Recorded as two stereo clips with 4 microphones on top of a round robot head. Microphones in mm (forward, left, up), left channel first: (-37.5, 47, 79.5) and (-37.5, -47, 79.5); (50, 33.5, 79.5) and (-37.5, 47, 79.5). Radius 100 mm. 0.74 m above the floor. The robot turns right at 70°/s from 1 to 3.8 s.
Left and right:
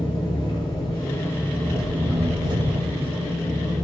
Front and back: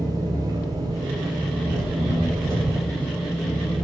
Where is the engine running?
130° left, 8.5 m; by 3.9 s 35° right, 8.5 m.